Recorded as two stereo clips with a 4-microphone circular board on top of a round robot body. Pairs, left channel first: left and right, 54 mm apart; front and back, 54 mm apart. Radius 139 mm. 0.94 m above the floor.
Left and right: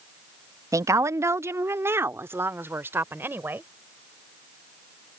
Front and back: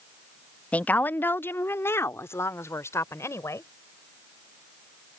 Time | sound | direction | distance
0.7 | a woman speaking | 65° right | ?